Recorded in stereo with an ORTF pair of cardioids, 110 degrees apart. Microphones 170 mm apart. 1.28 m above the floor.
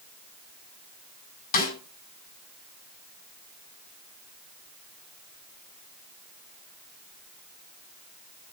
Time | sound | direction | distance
1.5 | a snare drum | 60° left | 6 m